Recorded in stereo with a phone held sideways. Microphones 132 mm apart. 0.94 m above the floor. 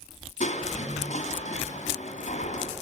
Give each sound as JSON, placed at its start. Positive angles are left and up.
{"t": 0.4, "sound": "crushing", "side_deg": 65, "distance_m": 2.5}